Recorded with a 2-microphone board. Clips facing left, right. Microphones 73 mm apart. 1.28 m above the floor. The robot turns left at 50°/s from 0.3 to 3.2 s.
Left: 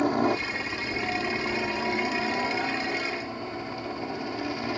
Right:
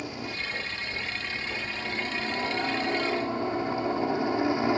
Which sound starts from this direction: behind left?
A helicopter, at 0.0 s.